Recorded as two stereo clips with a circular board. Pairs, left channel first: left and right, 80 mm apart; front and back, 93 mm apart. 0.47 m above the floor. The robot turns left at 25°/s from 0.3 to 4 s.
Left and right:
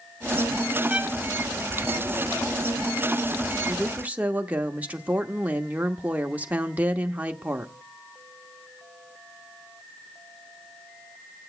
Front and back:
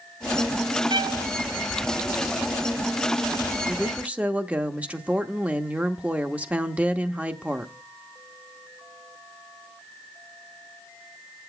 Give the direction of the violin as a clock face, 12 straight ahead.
5 o'clock.